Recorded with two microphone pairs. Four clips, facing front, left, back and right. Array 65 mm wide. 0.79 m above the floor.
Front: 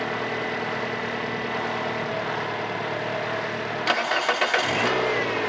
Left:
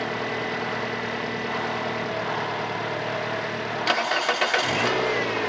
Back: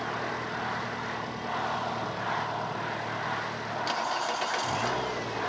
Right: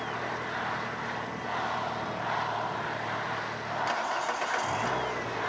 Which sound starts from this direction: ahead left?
An engine running, at 0.0 s.